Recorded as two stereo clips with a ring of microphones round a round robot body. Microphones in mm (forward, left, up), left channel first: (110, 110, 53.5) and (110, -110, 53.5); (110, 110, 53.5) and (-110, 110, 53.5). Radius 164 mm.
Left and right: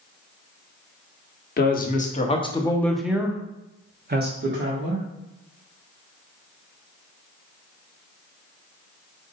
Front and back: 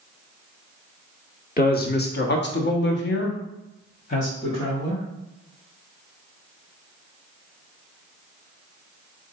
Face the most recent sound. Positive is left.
turn(degrees=-70)